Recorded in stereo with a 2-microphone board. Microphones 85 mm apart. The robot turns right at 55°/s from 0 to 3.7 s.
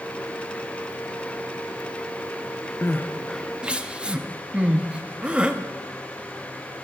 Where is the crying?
30° left (ahead or behind), 0.5 m; by 5.6 s 15° right (ahead or behind), 0.5 m.